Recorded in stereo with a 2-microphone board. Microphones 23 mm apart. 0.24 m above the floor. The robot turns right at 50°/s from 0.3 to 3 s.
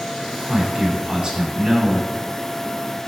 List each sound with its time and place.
0.5 s a man speaking: 120° right, 1.9 m; by 2.1 s 40° right, 1.9 m